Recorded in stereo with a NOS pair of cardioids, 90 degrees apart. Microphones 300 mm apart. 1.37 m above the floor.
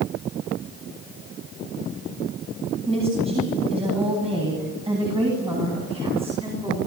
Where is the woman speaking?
20° right, 9 m.